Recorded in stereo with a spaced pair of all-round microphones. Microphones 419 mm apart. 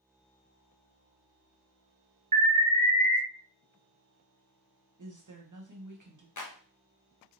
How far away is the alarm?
About 0.7 m.